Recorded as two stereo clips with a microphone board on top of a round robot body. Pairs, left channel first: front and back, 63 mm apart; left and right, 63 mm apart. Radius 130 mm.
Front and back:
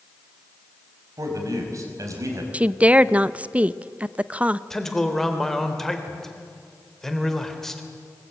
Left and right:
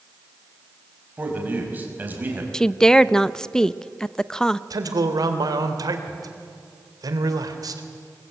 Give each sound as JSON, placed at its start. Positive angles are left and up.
{"t": 1.2, "sound": "a man speaking", "azimuth_deg": -150, "distance_m": 5.0}
{"t": 2.5, "sound": "a woman speaking", "azimuth_deg": 155, "distance_m": 0.7}
{"t": 4.7, "sound": "a man speaking", "azimuth_deg": -85, "distance_m": 3.0}